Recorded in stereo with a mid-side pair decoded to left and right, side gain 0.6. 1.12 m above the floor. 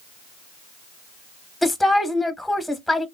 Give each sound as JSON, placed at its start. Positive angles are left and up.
{"t": 1.6, "sound": "a woman speaking", "azimuth_deg": 0, "distance_m": 0.7}